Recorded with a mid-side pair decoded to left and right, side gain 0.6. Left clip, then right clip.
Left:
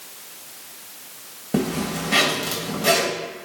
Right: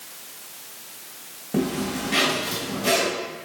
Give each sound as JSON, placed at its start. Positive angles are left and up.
{"t": 1.5, "sound": "a zipper", "azimuth_deg": 30, "distance_m": 3.0}